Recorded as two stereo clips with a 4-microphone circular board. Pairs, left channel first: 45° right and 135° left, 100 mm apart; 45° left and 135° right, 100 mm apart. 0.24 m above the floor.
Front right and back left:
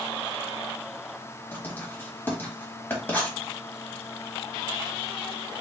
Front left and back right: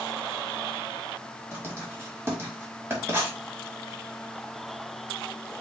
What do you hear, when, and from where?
1.5 s writing: 95° right, 1.3 m